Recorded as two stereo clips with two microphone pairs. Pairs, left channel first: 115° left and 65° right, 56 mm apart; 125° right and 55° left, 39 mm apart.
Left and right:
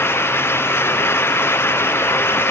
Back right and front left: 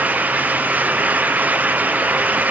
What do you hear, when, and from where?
Only background noise.